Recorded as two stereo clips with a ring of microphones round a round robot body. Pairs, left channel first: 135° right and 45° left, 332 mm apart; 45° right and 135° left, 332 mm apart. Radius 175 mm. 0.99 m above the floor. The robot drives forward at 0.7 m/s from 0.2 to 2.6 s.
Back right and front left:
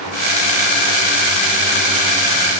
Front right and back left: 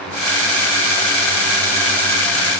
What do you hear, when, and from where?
Only background noise.